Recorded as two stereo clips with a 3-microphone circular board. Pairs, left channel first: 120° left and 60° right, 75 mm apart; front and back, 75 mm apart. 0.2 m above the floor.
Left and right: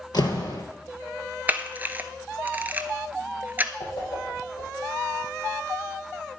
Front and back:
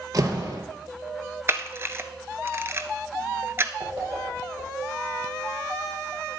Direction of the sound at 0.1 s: 140° left.